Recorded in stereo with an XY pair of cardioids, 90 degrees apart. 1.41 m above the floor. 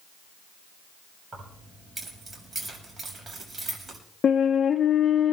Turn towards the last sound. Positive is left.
turn(degrees=50)